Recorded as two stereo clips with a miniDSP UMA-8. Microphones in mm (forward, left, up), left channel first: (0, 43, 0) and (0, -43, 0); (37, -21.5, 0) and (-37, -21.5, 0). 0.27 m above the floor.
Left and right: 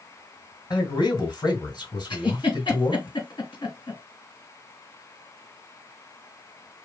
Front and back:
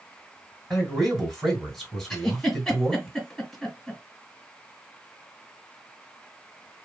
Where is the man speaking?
85° left, 3 m.